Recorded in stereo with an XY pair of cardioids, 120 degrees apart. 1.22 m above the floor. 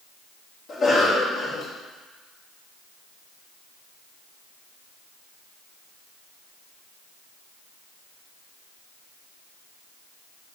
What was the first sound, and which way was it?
A cough, 40° left.